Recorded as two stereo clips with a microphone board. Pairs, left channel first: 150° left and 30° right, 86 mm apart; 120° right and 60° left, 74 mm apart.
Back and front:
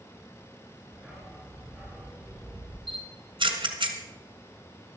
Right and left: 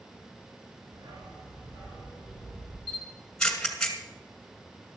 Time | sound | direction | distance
0.9 | a dog barking | 55° left | 3 m
2.9 | a camera shutter | 35° right | 1.9 m